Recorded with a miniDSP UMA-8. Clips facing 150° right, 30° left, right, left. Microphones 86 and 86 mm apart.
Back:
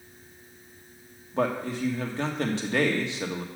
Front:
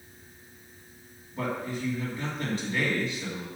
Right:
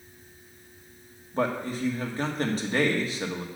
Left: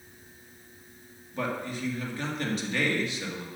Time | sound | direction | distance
1.3 | a man speaking | 140° right | 1.8 m